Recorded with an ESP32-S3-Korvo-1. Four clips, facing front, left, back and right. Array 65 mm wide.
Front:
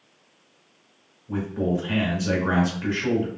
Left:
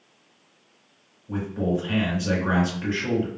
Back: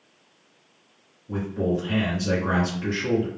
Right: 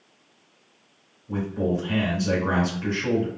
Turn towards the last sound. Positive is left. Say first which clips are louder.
# even, even
turn(degrees=45)